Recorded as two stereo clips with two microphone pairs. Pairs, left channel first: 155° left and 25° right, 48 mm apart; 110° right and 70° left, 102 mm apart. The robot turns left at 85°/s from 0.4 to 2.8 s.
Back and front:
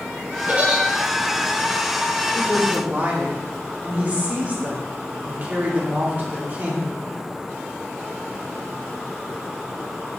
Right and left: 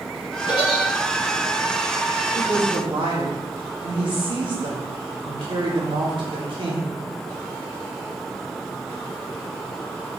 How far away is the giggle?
About 2.5 m.